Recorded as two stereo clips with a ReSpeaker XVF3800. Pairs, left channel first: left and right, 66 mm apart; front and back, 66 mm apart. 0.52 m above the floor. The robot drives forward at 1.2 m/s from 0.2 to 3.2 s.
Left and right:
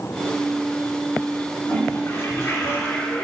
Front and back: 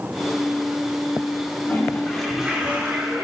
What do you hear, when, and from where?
1.7 s a toilet flushing: 45° left, 1.4 m; by 3.2 s 145° left, 1.6 m